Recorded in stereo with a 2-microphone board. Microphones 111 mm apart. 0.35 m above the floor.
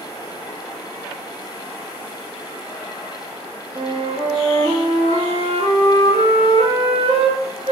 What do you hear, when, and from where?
3.8 s a flute: 75° right (ahead or behind), 3.5 m